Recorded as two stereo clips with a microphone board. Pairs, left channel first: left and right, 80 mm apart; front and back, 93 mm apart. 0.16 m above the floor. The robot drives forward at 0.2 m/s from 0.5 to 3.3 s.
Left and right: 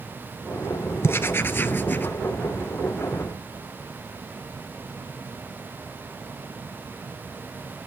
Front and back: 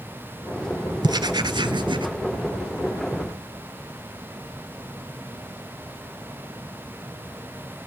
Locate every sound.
1.0 s writing: 145° left, 0.6 m; by 2.1 s 155° left, 0.8 m